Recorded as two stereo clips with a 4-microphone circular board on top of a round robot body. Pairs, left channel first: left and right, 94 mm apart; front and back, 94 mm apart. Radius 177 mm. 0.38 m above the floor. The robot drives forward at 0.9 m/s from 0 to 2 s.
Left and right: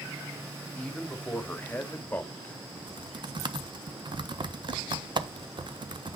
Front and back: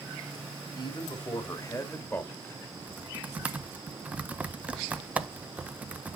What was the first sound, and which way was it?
A man speaking, 15° left.